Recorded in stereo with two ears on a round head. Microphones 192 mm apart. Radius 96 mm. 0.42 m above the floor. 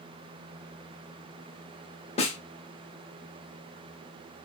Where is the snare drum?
30° left (ahead or behind), 1.0 m.